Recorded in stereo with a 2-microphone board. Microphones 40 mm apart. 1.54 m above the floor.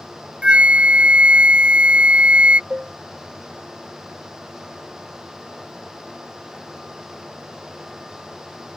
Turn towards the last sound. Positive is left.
turn(degrees=-20)  # may be behind; listen again after turning